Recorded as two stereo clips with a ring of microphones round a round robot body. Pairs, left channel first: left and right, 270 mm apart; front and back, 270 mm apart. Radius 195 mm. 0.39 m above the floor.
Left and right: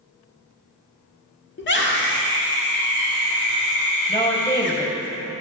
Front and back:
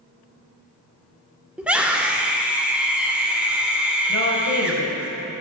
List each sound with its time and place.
1.6 s a scream: 95° left, 1.1 m
4.1 s a woman speaking: 25° left, 2.5 m